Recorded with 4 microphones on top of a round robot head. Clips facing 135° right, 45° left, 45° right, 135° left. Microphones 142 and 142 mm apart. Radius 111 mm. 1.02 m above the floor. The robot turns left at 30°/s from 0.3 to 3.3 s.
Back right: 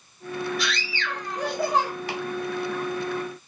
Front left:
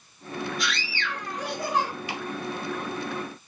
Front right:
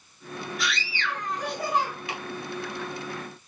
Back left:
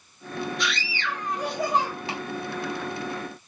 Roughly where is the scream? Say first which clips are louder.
Back right 2 dB, back left 1 dB; behind right.